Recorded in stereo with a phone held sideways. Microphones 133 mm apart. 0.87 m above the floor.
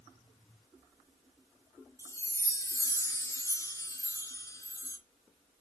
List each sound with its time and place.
2.0 s a chime: 20° left (ahead or behind), 0.7 m